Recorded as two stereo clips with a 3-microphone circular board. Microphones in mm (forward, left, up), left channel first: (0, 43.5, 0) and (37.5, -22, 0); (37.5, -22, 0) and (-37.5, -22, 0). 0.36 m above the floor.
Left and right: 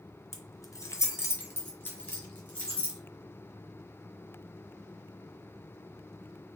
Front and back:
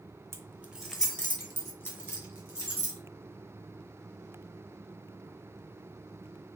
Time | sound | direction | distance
0.3 | keys jangling | 155° left | 0.7 m